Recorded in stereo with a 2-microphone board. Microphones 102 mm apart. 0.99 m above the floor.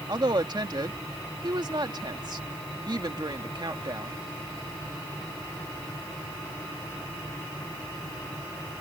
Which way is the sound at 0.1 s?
45° right (ahead or behind).